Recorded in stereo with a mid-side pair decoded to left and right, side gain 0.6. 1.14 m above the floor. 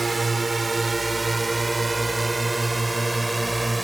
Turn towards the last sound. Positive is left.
turn(degrees=-10)